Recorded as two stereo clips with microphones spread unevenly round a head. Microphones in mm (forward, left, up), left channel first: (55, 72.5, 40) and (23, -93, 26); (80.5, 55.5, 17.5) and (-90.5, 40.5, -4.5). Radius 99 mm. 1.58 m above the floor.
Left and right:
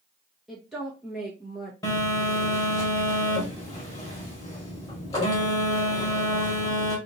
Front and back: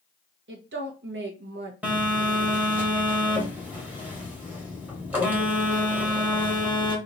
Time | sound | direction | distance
0.5 | a woman speaking | 170° left | 1.2 m
1.8 | a phone buzzing | 100° left | 1.4 m